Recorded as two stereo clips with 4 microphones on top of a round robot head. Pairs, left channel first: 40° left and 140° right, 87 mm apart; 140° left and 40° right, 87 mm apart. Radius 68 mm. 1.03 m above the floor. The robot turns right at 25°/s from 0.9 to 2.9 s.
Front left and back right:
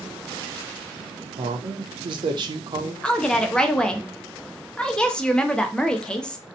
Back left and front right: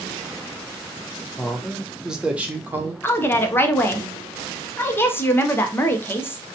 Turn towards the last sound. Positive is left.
turn(degrees=110)